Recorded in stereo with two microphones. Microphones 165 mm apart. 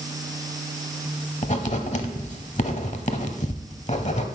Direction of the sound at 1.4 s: 45° left (ahead or behind).